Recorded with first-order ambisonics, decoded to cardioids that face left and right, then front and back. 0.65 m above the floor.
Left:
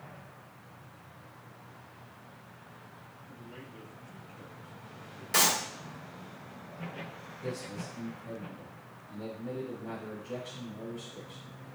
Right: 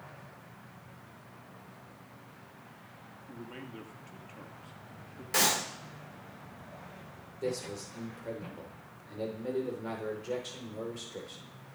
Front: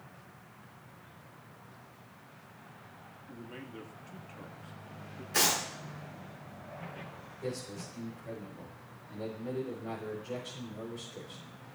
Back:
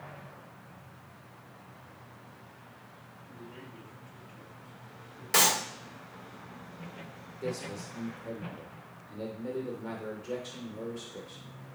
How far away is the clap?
About 4.5 m.